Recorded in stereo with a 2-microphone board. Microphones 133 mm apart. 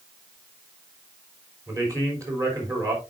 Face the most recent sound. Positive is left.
turn(degrees=-25)  # may be behind; listen again after turning